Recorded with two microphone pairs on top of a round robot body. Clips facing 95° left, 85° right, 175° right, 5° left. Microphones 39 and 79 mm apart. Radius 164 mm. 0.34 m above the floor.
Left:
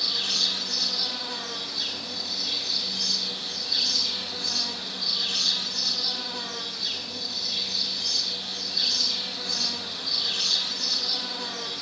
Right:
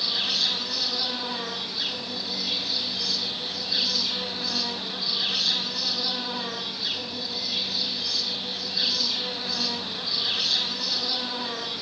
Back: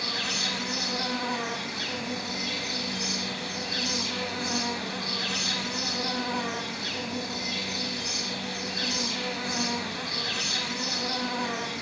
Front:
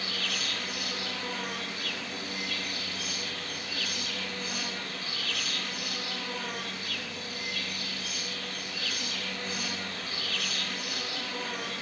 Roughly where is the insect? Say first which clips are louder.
Right 1 dB, back 3 dB; behind.